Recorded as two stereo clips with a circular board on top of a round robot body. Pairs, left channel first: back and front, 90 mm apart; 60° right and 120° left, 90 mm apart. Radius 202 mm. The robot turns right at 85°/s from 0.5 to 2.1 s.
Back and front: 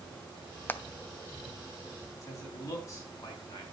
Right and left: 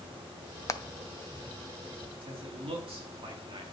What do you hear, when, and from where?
0.7 s hammering: 115° right, 0.9 m; by 0.8 s 105° right, 0.9 m
2.2 s a man speaking: 125° left, 4 m